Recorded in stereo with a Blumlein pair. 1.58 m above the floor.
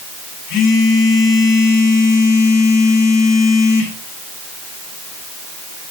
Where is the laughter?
No laughter in this recording.